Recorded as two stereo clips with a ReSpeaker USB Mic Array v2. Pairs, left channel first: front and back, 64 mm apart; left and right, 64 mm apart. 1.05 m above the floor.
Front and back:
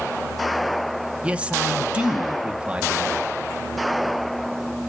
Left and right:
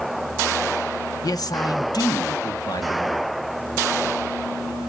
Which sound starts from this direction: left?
A man speaking, at 1.2 s.